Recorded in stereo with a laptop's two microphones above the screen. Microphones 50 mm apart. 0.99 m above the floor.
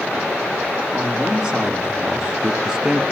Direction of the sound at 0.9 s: 15° right (ahead or behind).